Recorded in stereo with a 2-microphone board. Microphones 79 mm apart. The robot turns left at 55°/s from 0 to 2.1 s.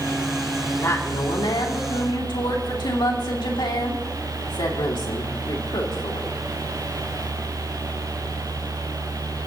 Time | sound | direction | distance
0.8 | a woman speaking | 145° left | 2.5 m